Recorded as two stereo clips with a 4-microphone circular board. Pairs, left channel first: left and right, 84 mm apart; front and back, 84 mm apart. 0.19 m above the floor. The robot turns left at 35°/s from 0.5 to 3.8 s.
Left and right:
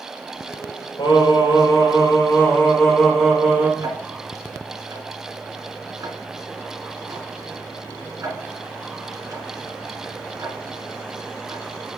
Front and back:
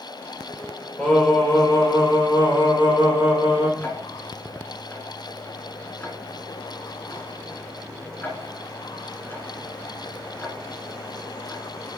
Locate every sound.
1.0 s singing: 75° left, 3.5 m; by 3.7 s 20° right, 3.5 m
3.8 s ticking: 60° right, 1.8 m